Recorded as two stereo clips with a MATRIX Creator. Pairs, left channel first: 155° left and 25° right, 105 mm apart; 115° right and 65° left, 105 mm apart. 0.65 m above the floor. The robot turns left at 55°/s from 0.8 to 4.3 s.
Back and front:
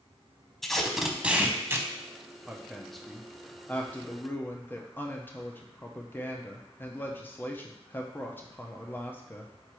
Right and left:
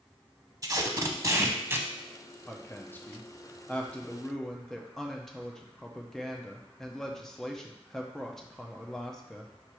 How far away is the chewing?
No chewing in this recording.